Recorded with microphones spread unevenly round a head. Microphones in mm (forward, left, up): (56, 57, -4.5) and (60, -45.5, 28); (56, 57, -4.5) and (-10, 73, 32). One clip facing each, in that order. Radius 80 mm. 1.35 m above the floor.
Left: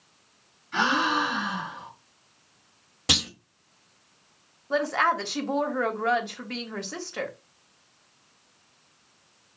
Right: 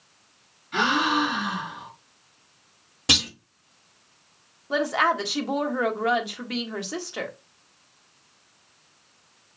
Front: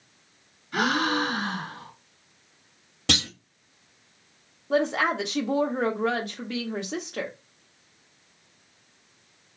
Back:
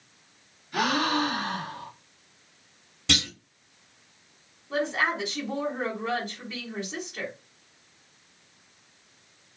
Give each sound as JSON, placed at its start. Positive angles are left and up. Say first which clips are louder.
{"t": 0.7, "sound": "a gasp", "louder": "right 2 dB, front 1 dB", "azimuth_deg": -10, "distance_m": 4.0}
{"t": 3.1, "sound": "a clunk", "louder": "right 2 dB, front 1 dB", "azimuth_deg": -5, "distance_m": 2.0}
{"t": 4.7, "sound": "a woman speaking", "louder": "right 1 dB, front 3 dB", "azimuth_deg": -15, "distance_m": 1.3}